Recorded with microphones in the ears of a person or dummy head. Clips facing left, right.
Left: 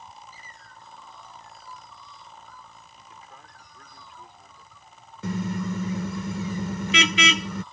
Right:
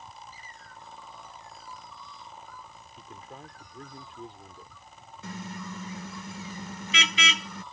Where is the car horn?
50° left (ahead or behind).